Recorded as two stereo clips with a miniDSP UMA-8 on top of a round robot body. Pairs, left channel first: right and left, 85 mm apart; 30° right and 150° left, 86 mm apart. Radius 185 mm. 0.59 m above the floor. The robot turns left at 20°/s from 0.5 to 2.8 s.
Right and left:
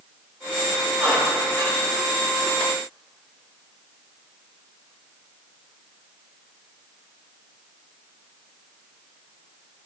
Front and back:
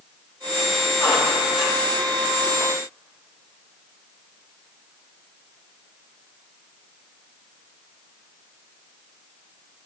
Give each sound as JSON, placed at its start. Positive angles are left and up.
{"t": 1.0, "sound": "a squeak", "azimuth_deg": -20, "distance_m": 7.0}